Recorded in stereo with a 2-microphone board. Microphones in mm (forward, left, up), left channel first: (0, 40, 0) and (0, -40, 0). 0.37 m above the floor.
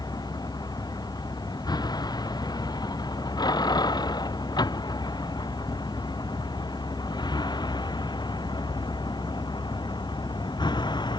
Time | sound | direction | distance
0.0 | a vehicle | 55° left (ahead or behind) | ?